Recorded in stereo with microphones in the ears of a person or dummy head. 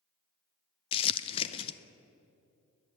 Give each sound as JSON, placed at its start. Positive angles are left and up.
{"t": 0.9, "sound": "crumpling", "side_deg": 30, "distance_m": 0.7}